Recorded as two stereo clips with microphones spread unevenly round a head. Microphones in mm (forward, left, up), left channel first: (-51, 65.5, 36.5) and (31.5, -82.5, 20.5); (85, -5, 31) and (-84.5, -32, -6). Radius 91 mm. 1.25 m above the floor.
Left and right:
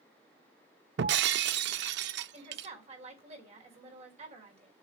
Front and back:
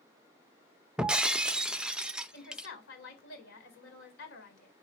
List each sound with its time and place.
1.0 s breaking glass: 80° right, 0.6 m
2.3 s a woman speaking: 5° right, 4.5 m